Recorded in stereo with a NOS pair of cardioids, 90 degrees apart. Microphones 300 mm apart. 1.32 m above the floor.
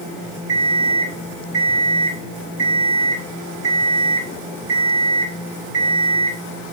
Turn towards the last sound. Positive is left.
turn(degrees=-50)